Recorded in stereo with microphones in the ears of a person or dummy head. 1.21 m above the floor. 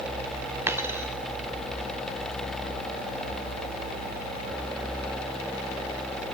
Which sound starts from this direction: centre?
A dropped coin, at 0.7 s.